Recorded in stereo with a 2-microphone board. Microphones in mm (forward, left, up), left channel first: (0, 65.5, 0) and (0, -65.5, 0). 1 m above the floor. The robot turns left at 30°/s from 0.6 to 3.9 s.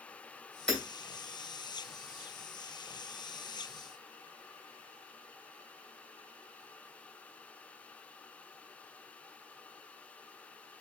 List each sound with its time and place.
0.7 s hammering: 5° left (ahead or behind), 2 m; by 0.8 s centre (ahead or behind), 2 m